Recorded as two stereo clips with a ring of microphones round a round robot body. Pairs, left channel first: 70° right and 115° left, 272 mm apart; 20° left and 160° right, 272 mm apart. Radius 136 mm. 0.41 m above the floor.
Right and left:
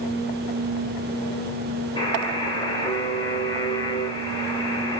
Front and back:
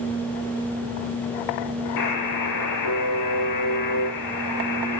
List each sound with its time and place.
2.0 s a buzzer: 10° left, 1.9 m